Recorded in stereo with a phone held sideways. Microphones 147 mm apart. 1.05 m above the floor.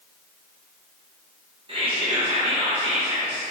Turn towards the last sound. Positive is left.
turn(degrees=-35)  # may be behind; listen again after turning